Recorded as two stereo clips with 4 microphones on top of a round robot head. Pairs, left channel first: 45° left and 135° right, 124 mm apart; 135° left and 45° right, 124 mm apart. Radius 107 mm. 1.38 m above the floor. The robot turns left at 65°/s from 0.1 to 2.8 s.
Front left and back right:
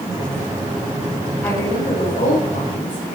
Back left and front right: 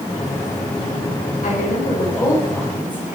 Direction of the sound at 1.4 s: 120° left.